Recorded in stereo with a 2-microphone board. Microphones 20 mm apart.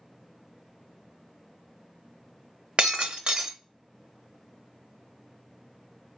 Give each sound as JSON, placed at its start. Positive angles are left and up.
{"t": 2.8, "sound": "breaking glass", "side_deg": -55, "distance_m": 0.6}